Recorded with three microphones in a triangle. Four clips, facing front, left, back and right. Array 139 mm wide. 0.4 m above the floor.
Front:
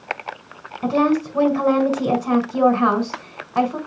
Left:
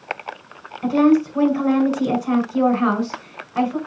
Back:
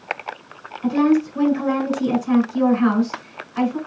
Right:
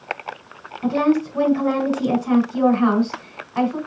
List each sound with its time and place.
0.8 s a woman speaking: 5° left, 4 m